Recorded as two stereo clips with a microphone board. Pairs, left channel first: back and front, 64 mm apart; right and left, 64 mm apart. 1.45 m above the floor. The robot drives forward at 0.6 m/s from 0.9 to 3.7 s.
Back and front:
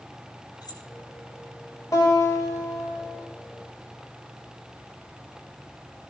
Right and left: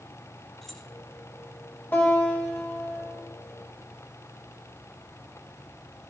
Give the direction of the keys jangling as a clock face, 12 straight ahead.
6 o'clock.